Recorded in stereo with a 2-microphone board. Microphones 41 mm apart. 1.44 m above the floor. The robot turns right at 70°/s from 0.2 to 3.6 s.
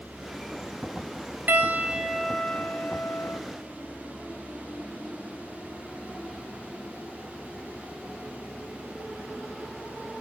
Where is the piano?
55° right, 0.6 m; by 3.4 s 80° left, 0.6 m.